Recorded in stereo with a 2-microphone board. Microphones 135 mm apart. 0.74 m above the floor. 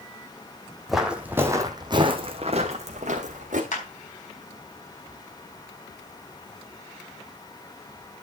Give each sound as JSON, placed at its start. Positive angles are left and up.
{"t": 0.9, "sound": "footsteps", "side_deg": 0, "distance_m": 1.9}
{"t": 3.7, "sound": "a clap", "side_deg": 60, "distance_m": 4.0}